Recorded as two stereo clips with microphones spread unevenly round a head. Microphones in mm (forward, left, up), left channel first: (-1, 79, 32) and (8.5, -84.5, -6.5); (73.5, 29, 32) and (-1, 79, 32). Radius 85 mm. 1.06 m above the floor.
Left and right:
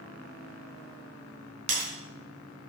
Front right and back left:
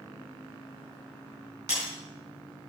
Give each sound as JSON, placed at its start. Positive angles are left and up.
{"t": 1.7, "sound": "breaking glass", "azimuth_deg": -145, "distance_m": 3.5}